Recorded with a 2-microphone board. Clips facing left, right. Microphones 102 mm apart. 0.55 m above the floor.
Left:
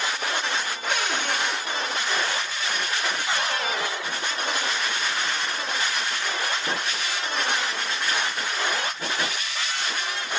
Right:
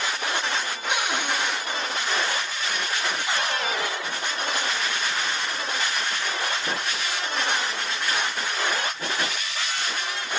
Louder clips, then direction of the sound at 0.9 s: Right 1 dB; 15° right (ahead or behind).